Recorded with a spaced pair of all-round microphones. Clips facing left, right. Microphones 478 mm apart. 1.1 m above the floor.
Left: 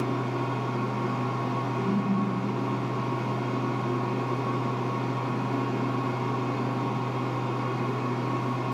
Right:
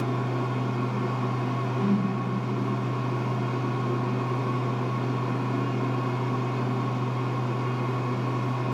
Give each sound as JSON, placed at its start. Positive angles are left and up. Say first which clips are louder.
{"t": 0.0, "sound": "a fan", "louder": "even", "side_deg": -10, "distance_m": 1.0}
{"t": 1.8, "sound": "a whoosh", "louder": "right 4 dB", "side_deg": -25, "distance_m": 1.2}